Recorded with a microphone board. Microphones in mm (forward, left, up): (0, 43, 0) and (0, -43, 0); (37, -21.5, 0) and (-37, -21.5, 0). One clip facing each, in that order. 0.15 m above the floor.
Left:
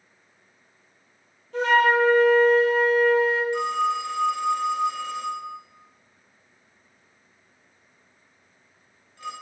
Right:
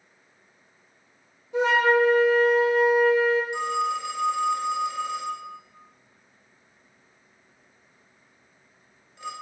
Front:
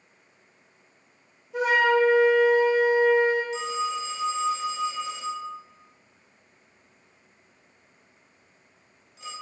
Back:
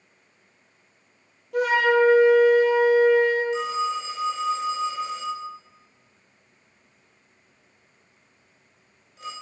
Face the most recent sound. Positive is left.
turn(degrees=-160)